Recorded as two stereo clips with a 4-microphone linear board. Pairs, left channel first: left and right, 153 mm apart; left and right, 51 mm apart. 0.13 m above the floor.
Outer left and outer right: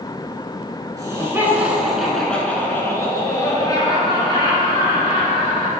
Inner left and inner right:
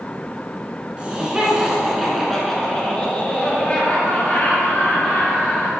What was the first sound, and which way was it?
Laughter, 25° right (ahead or behind).